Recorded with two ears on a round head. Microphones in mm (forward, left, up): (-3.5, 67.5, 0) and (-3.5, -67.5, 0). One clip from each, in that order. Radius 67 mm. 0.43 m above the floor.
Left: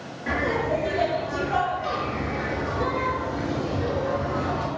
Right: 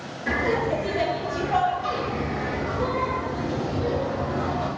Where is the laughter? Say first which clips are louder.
Right 1 dB; 35° right (ahead or behind), 1.7 m; by 4.7 s 40° left (ahead or behind), 2.5 m.